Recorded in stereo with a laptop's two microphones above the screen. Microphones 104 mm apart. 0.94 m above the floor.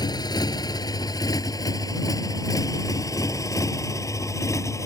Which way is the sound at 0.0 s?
40° left (ahead or behind).